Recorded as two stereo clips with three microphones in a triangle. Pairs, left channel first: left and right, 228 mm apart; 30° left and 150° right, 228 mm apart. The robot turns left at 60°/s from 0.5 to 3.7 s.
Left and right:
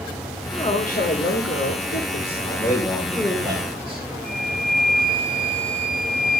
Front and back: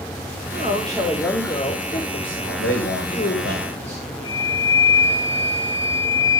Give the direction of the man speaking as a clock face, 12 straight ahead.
11 o'clock.